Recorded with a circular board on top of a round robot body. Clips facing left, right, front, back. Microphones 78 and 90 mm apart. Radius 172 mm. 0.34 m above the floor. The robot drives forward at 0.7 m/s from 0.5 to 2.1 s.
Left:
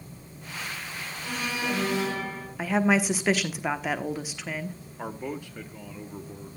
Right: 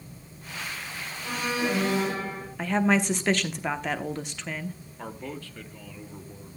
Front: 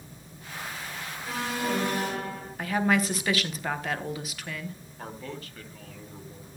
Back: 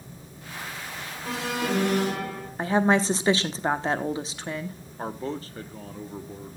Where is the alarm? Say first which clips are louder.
Right 3 dB, back 2 dB; 165° right, 4 m.